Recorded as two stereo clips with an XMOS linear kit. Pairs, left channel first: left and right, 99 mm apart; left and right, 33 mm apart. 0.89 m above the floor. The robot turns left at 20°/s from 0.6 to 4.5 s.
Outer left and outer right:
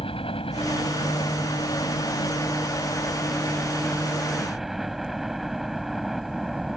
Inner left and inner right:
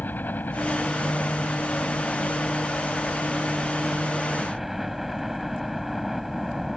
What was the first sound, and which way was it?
A helicopter, 75° left.